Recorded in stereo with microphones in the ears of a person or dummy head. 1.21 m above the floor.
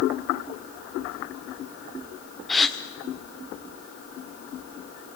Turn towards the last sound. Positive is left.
turn(degrees=5)  # may be behind; listen again after turning